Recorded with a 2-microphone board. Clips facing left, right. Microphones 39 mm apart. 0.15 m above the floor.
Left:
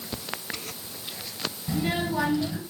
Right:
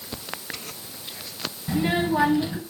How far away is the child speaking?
About 1.3 m.